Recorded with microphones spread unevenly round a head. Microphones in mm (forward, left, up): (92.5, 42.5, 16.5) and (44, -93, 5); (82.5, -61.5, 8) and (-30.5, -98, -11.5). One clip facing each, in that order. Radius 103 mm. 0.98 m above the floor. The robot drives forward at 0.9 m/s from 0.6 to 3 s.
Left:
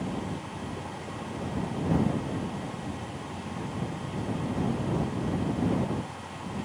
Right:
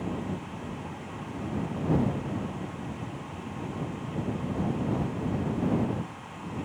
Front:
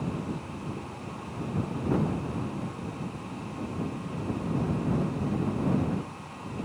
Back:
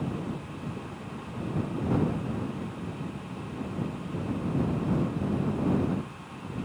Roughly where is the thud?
No thud in this recording.